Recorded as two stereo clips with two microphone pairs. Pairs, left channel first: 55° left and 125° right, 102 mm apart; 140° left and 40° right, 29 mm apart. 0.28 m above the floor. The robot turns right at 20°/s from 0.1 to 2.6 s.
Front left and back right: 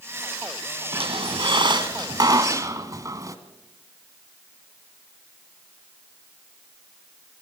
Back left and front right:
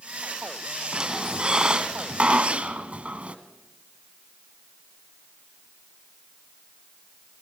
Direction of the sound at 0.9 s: 105° right.